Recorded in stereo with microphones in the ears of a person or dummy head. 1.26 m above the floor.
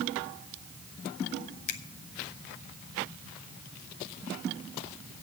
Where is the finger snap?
45° left (ahead or behind), 0.8 m.